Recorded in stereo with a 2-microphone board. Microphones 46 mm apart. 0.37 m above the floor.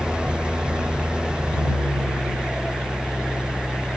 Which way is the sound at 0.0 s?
20° right (ahead or behind).